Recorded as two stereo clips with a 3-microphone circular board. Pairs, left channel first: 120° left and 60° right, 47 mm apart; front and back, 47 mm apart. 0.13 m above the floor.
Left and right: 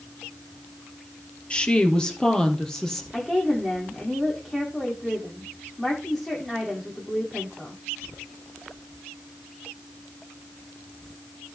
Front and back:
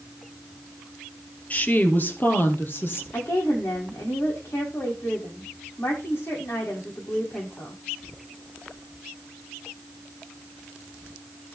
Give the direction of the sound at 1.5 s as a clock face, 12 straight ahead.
10 o'clock.